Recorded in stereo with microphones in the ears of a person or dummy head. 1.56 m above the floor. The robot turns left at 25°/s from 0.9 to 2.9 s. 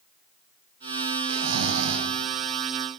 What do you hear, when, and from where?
1.3 s snoring: 80° right, 0.5 m; by 2.1 s 70° right (ahead or behind), 0.5 m